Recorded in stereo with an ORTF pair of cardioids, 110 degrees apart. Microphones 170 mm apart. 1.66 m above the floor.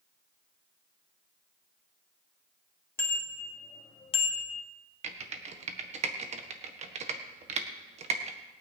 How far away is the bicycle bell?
About 3 m.